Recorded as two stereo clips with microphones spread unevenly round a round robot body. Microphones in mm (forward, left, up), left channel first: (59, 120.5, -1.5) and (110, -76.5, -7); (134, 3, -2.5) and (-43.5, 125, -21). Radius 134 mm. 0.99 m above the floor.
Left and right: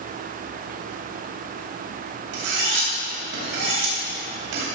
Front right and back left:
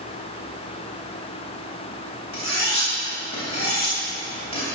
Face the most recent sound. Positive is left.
turn(degrees=-105)